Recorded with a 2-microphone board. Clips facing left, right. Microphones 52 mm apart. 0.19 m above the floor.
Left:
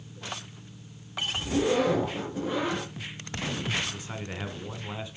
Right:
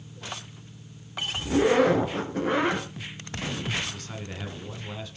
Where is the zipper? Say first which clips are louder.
Right 5 dB; 55° right (ahead or behind), 2.5 m.